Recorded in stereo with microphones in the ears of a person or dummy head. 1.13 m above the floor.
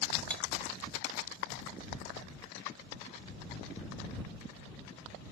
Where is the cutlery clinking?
Centre (ahead or behind).